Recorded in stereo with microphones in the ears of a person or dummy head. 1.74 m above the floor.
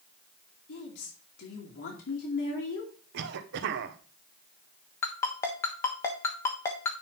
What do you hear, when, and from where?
0.7 s a woman speaking: 80° left, 2.5 m
3.1 s a cough: 70° right (ahead or behind), 1.1 m
5.0 s a ringtone: 15° left (ahead or behind), 1.2 m